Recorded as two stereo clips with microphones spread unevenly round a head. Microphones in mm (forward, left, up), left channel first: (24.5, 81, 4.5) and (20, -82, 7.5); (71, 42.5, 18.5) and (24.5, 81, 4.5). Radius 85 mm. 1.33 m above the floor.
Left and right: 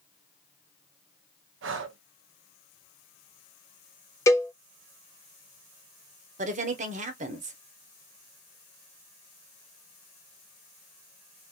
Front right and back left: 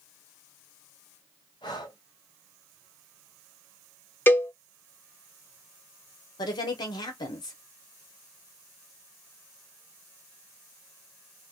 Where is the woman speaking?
50° right, 1.0 m.